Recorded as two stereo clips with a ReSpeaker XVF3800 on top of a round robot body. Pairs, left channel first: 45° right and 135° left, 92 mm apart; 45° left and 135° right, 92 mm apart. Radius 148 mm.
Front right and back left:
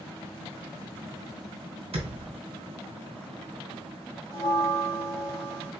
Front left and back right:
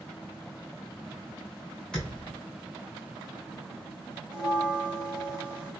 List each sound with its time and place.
1.9 s a thud: 125° left, 1.3 m
4.3 s a bell: 145° left, 1.0 m